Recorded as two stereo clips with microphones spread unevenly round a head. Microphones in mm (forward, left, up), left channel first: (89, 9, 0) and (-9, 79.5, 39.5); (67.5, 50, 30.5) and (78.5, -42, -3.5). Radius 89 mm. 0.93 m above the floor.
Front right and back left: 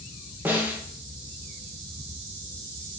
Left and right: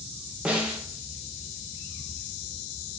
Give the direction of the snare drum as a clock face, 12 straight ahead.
4 o'clock.